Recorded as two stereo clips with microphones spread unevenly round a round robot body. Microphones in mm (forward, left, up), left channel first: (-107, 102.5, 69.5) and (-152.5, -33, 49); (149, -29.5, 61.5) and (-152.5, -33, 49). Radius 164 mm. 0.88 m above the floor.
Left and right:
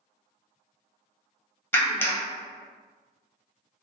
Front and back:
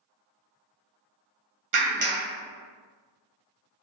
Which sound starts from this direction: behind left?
A clap, at 1.7 s.